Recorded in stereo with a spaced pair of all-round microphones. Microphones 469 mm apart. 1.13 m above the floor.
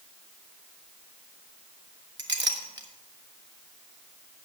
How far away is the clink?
About 1.0 m.